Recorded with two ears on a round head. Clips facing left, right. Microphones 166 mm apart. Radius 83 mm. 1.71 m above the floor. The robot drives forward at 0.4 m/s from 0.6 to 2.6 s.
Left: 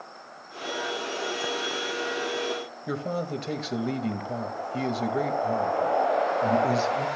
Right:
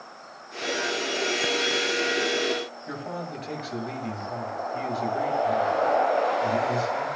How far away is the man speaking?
About 2.5 m.